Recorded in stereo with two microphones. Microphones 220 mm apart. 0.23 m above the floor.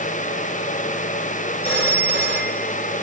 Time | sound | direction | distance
1.6 | a phone ringing | 30° left (ahead or behind) | 7 m